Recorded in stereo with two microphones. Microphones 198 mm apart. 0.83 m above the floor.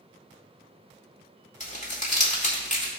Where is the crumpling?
35° left (ahead or behind), 2 m.